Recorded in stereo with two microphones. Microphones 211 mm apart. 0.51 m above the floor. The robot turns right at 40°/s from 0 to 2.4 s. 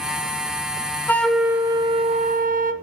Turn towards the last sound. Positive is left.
turn(degrees=-135)